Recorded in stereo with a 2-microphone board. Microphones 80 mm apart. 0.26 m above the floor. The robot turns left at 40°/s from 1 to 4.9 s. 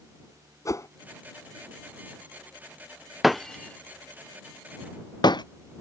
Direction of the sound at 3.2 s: 5° right (ahead or behind).